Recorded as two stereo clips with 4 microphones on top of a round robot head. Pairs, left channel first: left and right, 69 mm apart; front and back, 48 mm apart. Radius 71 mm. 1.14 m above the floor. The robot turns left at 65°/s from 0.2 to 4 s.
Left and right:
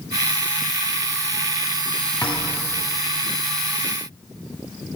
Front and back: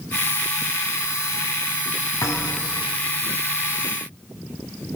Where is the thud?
15° left, 4 m; by 2.8 s 25° right, 4 m.